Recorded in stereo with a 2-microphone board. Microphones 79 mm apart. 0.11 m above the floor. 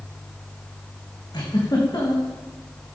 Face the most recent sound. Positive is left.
turn(degrees=55)  # may be behind; listen again after turning